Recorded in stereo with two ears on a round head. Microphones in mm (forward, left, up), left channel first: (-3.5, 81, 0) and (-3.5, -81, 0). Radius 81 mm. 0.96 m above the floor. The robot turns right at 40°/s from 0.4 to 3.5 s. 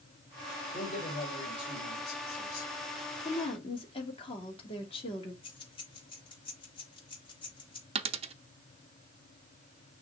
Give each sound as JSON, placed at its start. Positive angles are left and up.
{"t": 0.7, "sound": "a man speaking", "azimuth_deg": 30, "distance_m": 3.5}
{"t": 3.2, "sound": "a woman speaking", "side_deg": 40, "distance_m": 2.5}
{"t": 5.4, "sound": "keys jangling", "side_deg": 30, "distance_m": 3.0}
{"t": 8.0, "sound": "a dropped coin", "side_deg": -30, "distance_m": 0.7}